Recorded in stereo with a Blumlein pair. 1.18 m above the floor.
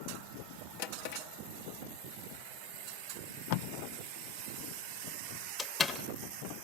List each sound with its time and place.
0.8 s a drawer: 50° left, 1.3 m
3.5 s tape being pulled: 50° left, 0.5 m
5.6 s a door slam: 15° left, 1.3 m